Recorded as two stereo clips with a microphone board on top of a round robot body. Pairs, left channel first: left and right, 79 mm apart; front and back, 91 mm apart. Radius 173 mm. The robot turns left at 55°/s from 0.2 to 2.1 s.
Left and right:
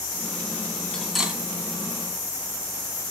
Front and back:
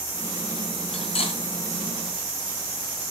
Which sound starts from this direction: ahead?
Cutlery clinking, at 0.9 s.